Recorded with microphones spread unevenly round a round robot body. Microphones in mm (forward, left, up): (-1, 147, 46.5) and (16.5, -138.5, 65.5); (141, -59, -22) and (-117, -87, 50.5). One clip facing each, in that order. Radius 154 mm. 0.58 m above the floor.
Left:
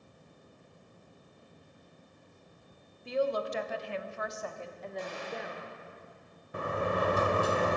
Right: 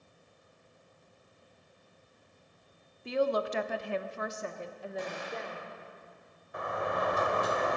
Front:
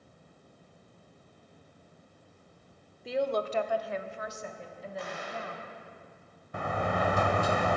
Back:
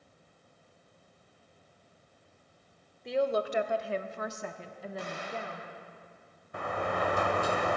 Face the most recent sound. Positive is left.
turn(degrees=30)